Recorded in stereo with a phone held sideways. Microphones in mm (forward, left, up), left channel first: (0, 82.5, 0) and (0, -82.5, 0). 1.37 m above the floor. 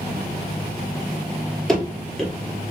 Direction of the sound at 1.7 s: Centre (ahead or behind).